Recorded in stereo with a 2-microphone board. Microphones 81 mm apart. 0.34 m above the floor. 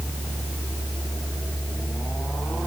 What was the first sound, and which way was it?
Only background noise.